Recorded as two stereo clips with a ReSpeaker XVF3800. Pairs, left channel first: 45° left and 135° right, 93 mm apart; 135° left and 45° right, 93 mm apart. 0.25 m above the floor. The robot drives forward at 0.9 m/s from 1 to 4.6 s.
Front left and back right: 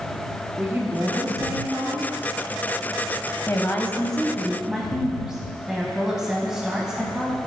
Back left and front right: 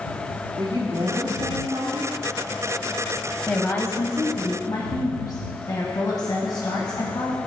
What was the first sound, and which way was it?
A woman speaking, 65° right.